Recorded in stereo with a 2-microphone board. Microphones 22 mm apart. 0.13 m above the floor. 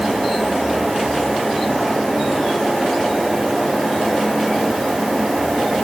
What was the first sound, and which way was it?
Only background noise.